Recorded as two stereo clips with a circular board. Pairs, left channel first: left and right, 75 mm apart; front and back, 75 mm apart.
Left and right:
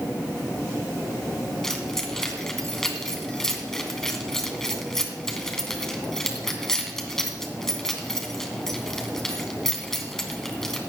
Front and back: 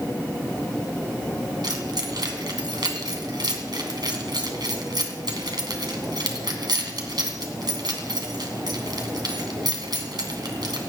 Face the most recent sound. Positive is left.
turn(degrees=175)